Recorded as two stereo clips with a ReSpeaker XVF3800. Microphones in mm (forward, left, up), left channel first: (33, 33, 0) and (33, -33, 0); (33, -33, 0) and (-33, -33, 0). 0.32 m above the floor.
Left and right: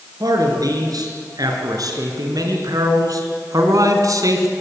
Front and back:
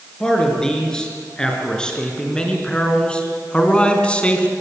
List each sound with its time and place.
0.2 s a man speaking: 80° right, 5 m; by 4.5 s 70° right, 3 m